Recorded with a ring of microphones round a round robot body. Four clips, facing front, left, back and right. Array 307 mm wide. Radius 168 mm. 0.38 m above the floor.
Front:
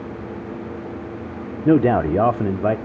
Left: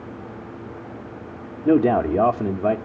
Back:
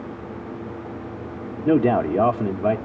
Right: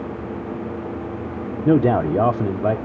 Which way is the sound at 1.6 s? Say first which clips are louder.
Even, front 2 dB; 25° right.